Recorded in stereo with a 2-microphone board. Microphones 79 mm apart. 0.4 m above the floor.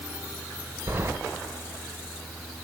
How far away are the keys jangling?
About 0.7 m.